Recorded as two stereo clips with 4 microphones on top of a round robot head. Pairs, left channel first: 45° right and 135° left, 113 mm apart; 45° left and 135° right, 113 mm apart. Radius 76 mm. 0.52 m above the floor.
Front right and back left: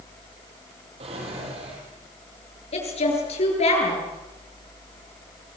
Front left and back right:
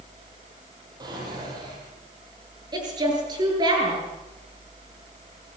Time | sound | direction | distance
1.0 | a drawer | 170° left | 7.5 m
2.7 | a woman speaking | 75° right | 8.5 m